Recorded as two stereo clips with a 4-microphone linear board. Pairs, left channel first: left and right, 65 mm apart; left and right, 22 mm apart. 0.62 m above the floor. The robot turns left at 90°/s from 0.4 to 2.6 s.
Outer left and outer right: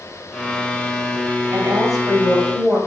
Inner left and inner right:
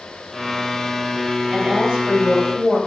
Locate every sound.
1.5 s a woman speaking: 70° right, 3 m; by 2.8 s 165° right, 3 m